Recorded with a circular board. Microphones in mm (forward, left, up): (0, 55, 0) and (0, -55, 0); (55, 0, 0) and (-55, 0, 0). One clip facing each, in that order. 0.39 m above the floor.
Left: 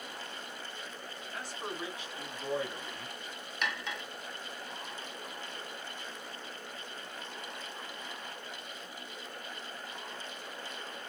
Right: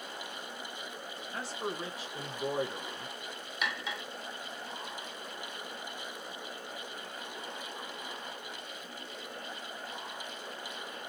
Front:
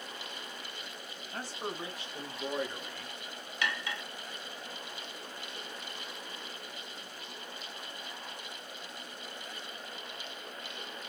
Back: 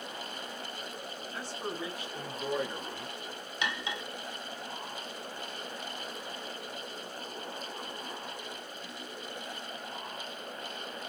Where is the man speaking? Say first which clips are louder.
Right 3 dB, even; 35° right, 1.7 m; by 3.1 s 155° right, 1.1 m.